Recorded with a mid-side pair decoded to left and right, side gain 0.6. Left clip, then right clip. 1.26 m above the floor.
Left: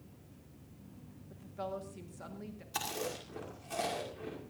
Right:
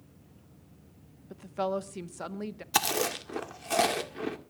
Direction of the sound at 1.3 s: 55° right.